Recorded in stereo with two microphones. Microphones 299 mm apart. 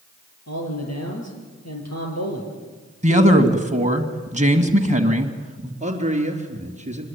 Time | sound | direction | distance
0.5 | a man speaking | 65° left (ahead or behind) | 5 m
3.0 | a man speaking | 25° right (ahead or behind) | 1.7 m
5.8 | a man speaking | 25° right (ahead or behind) | 3.5 m